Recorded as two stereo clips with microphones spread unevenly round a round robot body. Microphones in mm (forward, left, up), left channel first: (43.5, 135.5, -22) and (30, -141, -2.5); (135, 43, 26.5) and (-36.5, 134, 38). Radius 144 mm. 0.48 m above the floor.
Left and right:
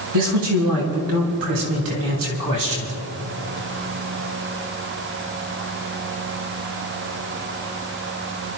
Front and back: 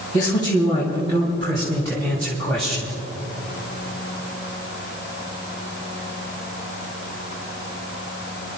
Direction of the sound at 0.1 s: 85° right.